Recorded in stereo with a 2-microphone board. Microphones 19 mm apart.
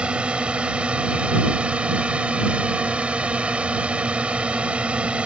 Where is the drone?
65° right (ahead or behind); by 5.2 s 70° right (ahead or behind).